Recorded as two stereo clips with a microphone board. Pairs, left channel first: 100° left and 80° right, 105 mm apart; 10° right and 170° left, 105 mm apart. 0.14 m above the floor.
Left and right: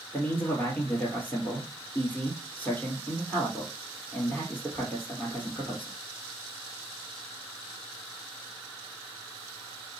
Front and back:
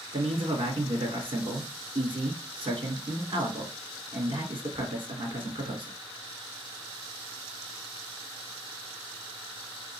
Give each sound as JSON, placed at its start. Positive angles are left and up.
{"t": 0.1, "sound": "a man speaking", "azimuth_deg": 170, "distance_m": 2.0}